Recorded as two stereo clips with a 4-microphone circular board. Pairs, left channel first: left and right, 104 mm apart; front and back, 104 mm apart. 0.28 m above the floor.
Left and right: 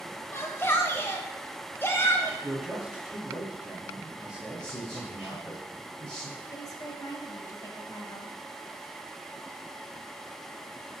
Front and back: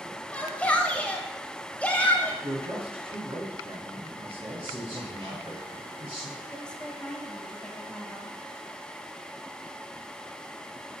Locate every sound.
0.3 s a shout: 60° left, 1.1 m
2.4 s a man speaking: 170° right, 2.5 m
4.6 s a man speaking: 175° left, 3 m
6.5 s a woman speaking: 75° left, 1.4 m